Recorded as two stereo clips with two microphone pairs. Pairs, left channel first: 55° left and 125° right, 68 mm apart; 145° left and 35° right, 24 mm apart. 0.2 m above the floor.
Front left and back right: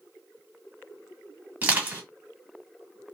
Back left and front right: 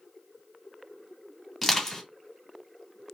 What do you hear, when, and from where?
1.6 s crushing: 140° right, 1.6 m